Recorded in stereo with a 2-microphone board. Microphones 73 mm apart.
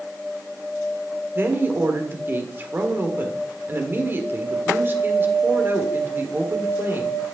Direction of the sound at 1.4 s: 30° right (ahead or behind).